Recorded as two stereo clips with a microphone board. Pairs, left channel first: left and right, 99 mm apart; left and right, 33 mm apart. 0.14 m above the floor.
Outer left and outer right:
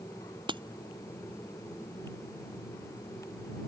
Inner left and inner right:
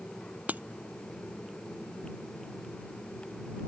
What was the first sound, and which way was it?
Breaking glass, 55° right (ahead or behind).